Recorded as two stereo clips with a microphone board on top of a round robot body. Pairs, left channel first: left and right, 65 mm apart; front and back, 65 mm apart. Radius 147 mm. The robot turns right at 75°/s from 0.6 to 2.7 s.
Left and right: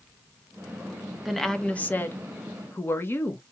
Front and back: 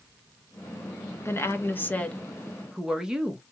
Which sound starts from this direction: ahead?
A woman speaking, at 1.2 s.